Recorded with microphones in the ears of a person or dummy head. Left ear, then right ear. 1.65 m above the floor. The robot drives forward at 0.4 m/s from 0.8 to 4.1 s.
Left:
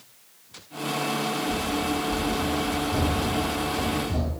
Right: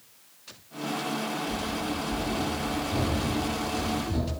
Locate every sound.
1.5 s running footsteps: 15° right (ahead or behind), 1.7 m; by 4.3 s 25° right (ahead or behind), 2.0 m